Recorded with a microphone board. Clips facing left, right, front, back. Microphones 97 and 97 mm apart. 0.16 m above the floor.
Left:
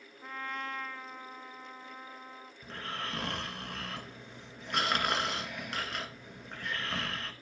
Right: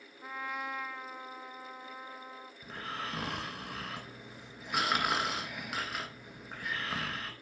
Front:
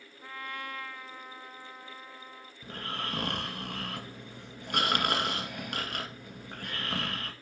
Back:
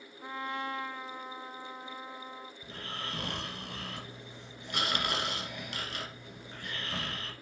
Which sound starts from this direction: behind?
A trumpet, at 0.2 s.